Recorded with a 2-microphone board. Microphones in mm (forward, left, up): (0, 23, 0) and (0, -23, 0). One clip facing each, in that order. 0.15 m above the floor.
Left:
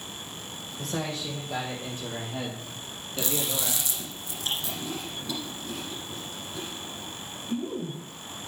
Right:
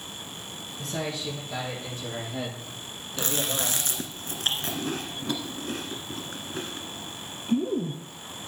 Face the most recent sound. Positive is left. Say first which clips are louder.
# right 1 dB
turn(degrees=-50)  # may be behind; listen again after turning